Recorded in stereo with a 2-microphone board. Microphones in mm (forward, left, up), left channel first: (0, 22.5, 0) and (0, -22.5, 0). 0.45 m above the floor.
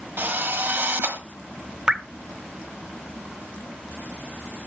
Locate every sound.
0.2 s a drill: 45° right (ahead or behind), 1.1 m
1.9 s dripping: 20° right (ahead or behind), 0.6 m